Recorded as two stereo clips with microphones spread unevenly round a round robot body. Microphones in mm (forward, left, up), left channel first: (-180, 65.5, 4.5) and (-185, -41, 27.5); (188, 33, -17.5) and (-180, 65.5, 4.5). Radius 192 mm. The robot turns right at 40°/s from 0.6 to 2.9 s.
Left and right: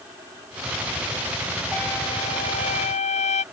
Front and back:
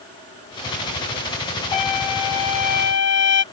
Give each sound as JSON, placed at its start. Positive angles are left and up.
{"t": 1.7, "sound": "a trumpet", "azimuth_deg": -5}